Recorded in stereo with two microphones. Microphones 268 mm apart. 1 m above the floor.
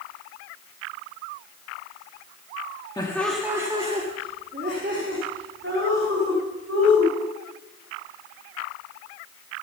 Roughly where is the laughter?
Centre.